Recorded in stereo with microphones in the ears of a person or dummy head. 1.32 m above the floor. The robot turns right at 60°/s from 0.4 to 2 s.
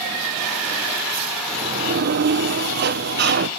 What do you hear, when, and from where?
1.5 s a sliding door: 155° right, 0.7 m; by 3.5 s 120° right, 0.7 m